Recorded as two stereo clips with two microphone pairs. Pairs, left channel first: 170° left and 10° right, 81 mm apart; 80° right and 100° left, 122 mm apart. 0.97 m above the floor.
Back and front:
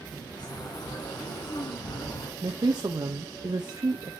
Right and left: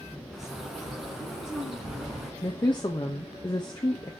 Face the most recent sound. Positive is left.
turn(degrees=-35)